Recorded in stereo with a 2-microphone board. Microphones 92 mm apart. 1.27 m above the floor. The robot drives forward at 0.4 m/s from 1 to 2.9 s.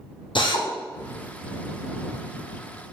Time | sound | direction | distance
0.3 | a drill | 60° left (ahead or behind) | 0.5 m